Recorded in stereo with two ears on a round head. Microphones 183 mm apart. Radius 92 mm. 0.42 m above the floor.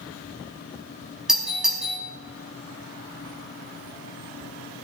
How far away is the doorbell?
About 4.5 m.